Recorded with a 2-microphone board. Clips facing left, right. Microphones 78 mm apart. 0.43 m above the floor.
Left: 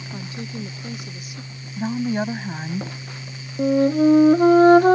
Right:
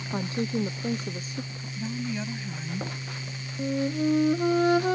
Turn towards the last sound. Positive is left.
turn(degrees=50)  # may be behind; listen again after turning